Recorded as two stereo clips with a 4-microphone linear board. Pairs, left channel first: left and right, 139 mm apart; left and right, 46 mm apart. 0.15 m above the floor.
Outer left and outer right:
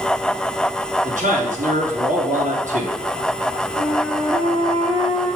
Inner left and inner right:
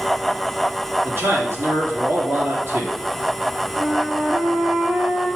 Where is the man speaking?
65° right (ahead or behind), 3.5 m.